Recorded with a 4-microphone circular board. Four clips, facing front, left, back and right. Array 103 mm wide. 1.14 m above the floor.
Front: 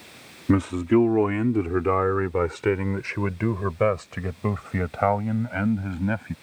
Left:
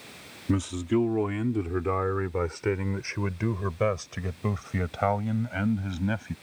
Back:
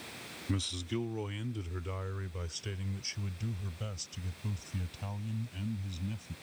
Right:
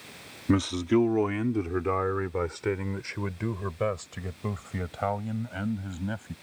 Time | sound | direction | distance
0.5 | a man speaking | 20° right | ?